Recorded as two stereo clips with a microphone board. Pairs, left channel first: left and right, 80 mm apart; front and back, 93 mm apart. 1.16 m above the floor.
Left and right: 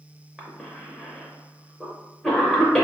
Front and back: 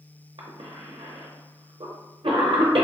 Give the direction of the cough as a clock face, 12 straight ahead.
6 o'clock.